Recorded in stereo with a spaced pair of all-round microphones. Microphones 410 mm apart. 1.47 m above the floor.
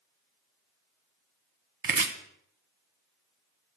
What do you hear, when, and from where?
1.8 s chopping: 55° right (ahead or behind), 0.7 m